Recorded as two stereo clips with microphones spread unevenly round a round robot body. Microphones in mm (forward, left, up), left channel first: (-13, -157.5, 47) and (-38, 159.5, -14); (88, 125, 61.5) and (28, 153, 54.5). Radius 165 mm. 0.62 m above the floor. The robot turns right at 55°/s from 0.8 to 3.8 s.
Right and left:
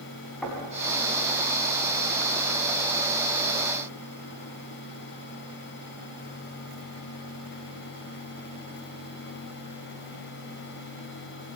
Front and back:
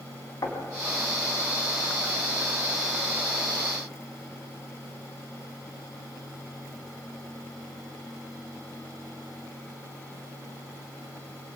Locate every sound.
0.4 s knocking: straight ahead, 3.5 m